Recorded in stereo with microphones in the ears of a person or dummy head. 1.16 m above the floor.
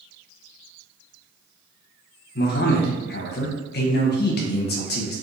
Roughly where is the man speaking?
Left.